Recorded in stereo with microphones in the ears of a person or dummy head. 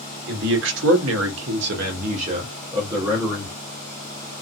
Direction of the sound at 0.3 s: 65° right (ahead or behind).